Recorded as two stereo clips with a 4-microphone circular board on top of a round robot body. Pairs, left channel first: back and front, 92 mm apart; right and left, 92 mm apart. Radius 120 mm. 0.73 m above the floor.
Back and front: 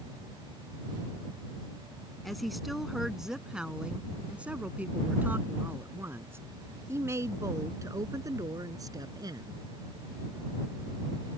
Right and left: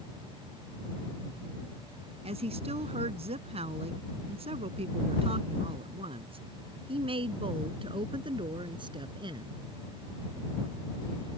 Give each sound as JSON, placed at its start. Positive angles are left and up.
{"t": 2.2, "sound": "a woman speaking", "azimuth_deg": 95}